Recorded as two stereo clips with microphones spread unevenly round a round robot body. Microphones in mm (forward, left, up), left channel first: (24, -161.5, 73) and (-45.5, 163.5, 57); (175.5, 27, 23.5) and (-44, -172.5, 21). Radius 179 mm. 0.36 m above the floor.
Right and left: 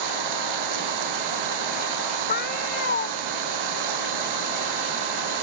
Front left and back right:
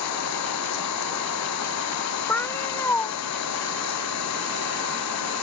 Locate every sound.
0.0 s an engine running: 90° left
2.3 s a cat meowing: 35° right